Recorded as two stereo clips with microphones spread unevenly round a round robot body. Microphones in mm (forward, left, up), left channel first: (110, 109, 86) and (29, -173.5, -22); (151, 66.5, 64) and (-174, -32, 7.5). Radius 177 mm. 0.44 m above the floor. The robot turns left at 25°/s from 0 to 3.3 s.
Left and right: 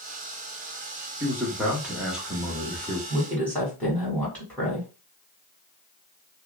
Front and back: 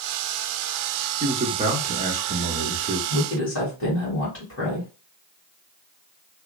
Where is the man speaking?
125° right, 0.9 m; by 3.0 s 170° right, 0.9 m.